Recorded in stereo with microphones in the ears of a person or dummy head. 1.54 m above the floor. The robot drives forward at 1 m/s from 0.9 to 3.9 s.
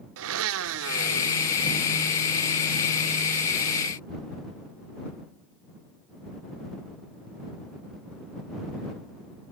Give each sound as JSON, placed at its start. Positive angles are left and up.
{"t": 0.2, "sound": "a blender", "side_deg": -80, "distance_m": 1.1}